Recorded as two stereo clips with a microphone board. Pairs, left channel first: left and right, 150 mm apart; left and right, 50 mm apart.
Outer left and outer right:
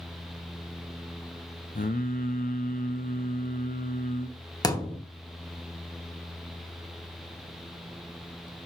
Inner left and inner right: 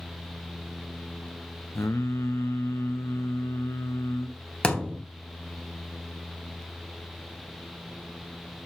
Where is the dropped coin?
I don't hear a dropped coin.